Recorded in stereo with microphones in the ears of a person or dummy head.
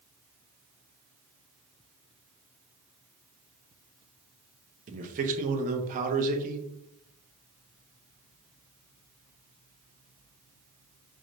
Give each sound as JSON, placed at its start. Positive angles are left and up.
{"t": 4.9, "sound": "a man speaking", "side_deg": -45, "distance_m": 1.0}